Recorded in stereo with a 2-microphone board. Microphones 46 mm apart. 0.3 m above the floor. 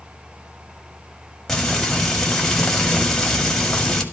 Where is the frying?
10° left (ahead or behind), 1.7 m.